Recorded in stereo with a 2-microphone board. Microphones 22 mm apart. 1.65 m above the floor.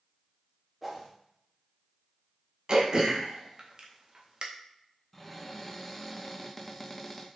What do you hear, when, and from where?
0.8 s a whoosh: 5° right (ahead or behind), 0.7 m
2.7 s throat clearing: 35° right (ahead or behind), 0.6 m
5.1 s a cupboard door: 10° left (ahead or behind), 0.6 m